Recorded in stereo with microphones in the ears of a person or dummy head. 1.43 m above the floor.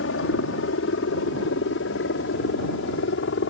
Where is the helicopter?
65° left (ahead or behind); by 3.5 s 60° left (ahead or behind).